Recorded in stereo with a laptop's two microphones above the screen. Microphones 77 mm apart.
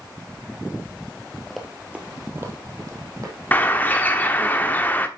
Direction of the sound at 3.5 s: 25° left (ahead or behind).